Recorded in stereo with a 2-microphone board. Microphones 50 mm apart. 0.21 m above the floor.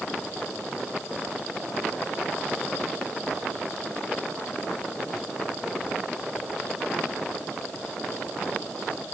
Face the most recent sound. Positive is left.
No sound to turn to.